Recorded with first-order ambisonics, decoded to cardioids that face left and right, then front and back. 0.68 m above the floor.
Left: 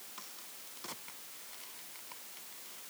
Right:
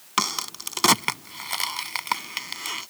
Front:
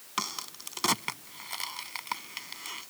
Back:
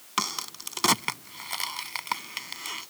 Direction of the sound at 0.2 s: 105° right.